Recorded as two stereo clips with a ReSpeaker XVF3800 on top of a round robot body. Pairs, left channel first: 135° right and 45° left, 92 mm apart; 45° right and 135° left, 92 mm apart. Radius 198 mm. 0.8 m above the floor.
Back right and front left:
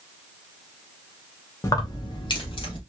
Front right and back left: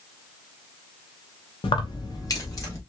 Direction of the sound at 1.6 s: 75° right.